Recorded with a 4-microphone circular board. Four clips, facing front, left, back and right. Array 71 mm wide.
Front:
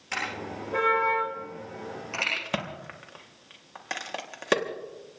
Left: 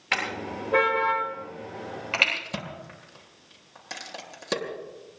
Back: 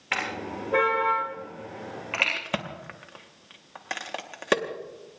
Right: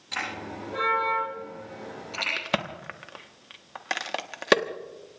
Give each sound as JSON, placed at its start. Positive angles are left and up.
{"t": 0.1, "sound": "a car horn", "azimuth_deg": 125, "distance_m": 8.5}
{"t": 2.4, "sound": "a crack", "azimuth_deg": -100, "distance_m": 1.3}